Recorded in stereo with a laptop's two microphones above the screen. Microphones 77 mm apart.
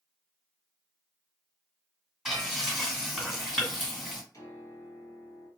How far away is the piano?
About 1.4 m.